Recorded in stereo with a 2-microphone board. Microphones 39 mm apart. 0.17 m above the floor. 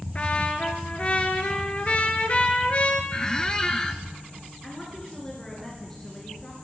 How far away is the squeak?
About 1.0 m.